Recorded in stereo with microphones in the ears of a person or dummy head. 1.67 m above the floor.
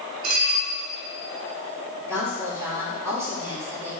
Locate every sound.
0.2 s dishes clattering: 55° right (ahead or behind), 3 m
2.0 s a woman speaking: 15° right (ahead or behind), 3.5 m